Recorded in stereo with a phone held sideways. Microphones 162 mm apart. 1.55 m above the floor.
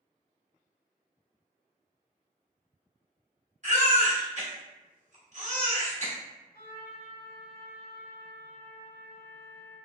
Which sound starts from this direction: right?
A baby crying, at 3.6 s.